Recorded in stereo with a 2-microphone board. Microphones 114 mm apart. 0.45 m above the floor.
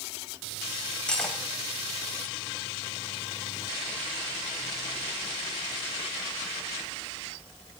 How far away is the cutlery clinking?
About 1.3 m.